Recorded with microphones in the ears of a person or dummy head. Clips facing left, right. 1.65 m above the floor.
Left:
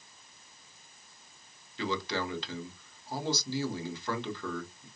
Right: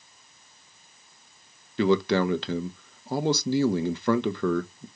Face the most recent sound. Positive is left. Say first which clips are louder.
# right 12 dB
turn(degrees=-50)  # may be behind; listen again after turning